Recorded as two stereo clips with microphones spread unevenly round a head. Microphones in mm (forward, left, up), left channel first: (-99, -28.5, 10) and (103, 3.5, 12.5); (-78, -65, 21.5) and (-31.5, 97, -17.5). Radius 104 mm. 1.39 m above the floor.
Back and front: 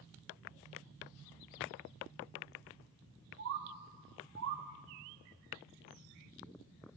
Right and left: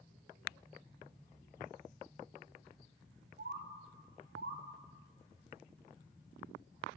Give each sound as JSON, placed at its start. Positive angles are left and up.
{"t": 3.4, "sound": "a bird", "azimuth_deg": 30, "distance_m": 0.5}